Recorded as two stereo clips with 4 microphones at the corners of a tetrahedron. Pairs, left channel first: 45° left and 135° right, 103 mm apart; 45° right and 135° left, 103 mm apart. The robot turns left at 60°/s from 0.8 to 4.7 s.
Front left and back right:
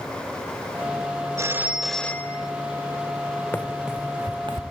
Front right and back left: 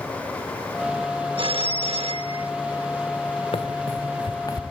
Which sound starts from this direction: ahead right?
Running footsteps, at 3.5 s.